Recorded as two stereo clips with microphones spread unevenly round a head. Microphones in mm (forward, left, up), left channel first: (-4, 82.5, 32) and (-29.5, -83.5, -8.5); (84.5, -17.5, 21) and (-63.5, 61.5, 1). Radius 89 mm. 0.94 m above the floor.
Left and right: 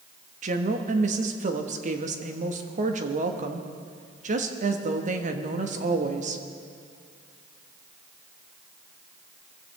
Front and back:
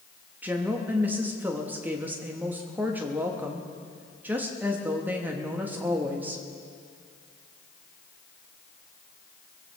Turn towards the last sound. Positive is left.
turn(degrees=-130)